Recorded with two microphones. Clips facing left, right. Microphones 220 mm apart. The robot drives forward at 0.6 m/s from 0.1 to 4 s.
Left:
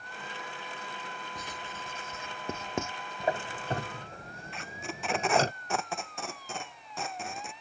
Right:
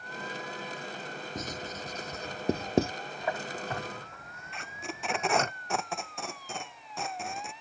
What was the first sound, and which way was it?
Writing, 45° right (ahead or behind).